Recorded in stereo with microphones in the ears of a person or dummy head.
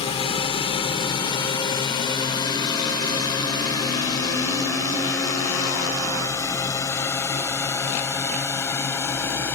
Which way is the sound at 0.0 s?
25° left (ahead or behind).